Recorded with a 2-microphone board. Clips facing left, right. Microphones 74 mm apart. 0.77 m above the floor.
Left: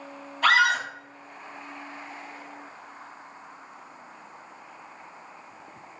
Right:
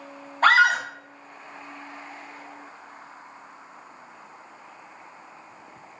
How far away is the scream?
About 1.7 m.